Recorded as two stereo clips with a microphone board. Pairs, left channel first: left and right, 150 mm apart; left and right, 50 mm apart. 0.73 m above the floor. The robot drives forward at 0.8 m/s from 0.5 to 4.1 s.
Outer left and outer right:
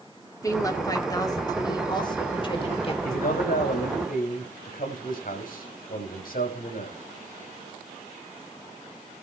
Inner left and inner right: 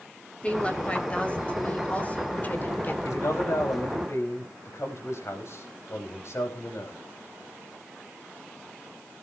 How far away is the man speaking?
About 5 m.